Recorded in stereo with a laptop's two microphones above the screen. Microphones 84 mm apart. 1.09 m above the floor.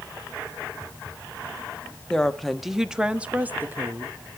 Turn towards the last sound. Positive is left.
turn(degrees=-30)  # may be behind; listen again after turning